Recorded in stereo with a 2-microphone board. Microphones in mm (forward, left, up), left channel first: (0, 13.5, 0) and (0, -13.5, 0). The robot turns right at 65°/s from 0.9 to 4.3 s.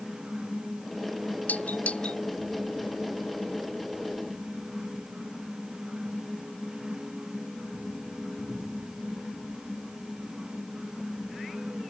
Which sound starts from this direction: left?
A doorbell, at 1.5 s.